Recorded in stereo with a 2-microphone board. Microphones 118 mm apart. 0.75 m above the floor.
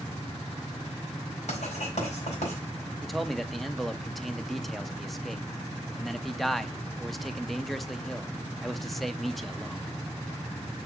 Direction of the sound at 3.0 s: Centre (ahead or behind).